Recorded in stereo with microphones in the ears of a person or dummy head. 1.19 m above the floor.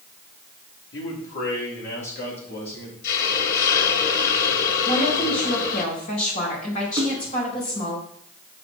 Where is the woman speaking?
35° left (ahead or behind), 4.5 m.